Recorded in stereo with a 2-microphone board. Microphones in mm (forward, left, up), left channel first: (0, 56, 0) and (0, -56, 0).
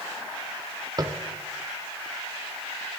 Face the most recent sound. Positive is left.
turn(degrees=-35)  # may be behind; listen again after turning